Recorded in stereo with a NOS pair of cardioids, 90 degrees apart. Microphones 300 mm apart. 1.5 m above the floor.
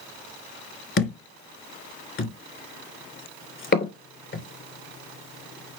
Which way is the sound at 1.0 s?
45° left.